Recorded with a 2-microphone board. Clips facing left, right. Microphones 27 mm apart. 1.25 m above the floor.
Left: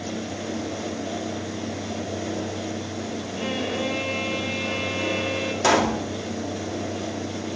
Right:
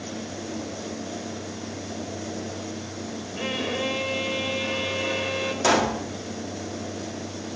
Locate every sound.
3.4 s a violin: 10° right (ahead or behind), 2.5 m
5.6 s a pop: 10° left (ahead or behind), 3 m